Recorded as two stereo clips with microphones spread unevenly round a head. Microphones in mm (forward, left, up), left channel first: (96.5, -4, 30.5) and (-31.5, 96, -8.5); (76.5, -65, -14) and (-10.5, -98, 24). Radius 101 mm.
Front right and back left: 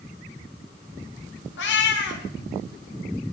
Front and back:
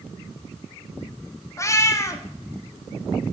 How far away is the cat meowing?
About 0.8 m.